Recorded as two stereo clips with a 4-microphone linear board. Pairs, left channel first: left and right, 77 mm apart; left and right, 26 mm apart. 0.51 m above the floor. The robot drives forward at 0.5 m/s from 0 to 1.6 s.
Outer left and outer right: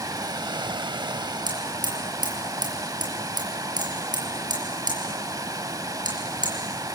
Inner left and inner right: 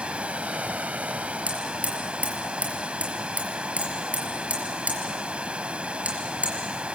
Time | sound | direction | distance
0.0 | running water | 50° right (ahead or behind) | 0.7 m
1.5 | hammering | 70° right (ahead or behind) | 5.5 m